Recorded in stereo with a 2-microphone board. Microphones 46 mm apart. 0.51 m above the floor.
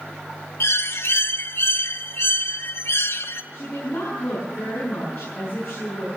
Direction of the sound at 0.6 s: 65° left (ahead or behind).